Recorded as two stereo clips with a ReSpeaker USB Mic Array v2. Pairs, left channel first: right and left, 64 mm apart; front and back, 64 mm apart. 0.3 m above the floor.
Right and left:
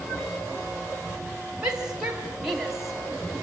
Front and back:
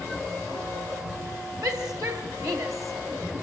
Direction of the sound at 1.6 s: 165° left.